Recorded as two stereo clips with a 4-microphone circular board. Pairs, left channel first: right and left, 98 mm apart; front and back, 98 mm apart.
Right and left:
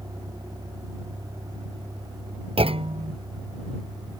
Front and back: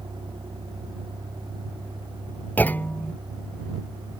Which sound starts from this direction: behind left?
A vehicle, at 0.0 s.